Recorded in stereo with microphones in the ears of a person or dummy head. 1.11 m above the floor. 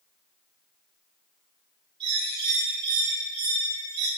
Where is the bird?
35° right (ahead or behind), 7.5 m.